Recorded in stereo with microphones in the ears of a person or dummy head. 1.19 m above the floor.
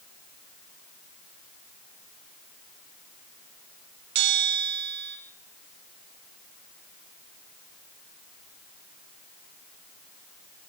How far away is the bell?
About 2.0 m.